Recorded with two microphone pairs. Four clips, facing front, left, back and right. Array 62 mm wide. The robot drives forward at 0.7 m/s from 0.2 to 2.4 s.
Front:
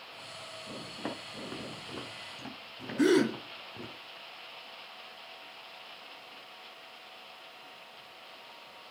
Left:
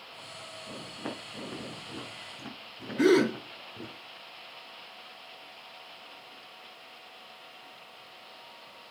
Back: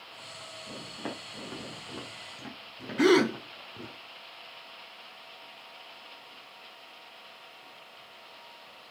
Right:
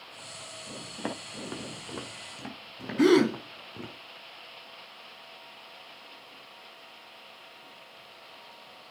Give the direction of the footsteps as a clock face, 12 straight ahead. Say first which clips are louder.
Right 3 dB, even; 3 o'clock.